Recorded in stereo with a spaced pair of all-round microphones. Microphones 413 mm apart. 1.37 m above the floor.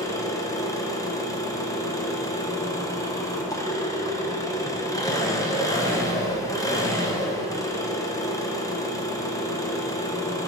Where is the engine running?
10° left (ahead or behind), 0.9 m.